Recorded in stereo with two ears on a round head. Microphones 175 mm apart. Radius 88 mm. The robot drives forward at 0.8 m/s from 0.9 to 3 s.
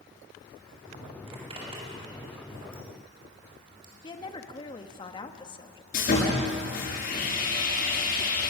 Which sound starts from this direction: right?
A zipper, at 1.3 s.